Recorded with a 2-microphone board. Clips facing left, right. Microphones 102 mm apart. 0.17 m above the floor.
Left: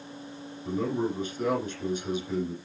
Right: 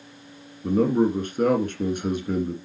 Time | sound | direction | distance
0.6 | a man speaking | 55° right (ahead or behind) | 2 m